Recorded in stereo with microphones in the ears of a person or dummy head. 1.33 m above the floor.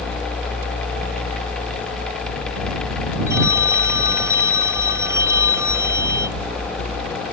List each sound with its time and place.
3.3 s a phone ringing: 15° right (ahead or behind)